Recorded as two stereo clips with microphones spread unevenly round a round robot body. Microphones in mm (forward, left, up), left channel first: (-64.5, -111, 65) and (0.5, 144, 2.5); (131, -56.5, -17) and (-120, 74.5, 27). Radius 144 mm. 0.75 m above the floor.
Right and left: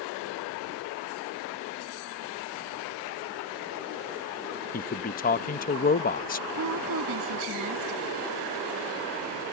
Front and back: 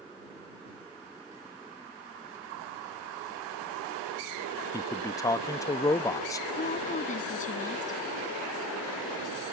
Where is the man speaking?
65° right.